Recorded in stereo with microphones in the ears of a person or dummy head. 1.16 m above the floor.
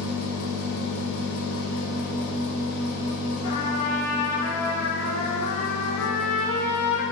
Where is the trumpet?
70° left (ahead or behind), 1.2 m.